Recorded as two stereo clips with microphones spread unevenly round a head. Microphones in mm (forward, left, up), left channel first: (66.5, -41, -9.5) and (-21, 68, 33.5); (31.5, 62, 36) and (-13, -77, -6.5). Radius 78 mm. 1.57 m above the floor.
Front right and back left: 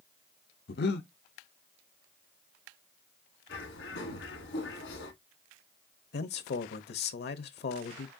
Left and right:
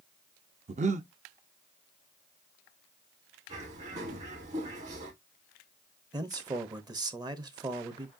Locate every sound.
0.7 s breathing: 65° right, 0.6 m
3.5 s a bird: 60° right, 2.5 m
6.1 s a man speaking: 40° right, 0.7 m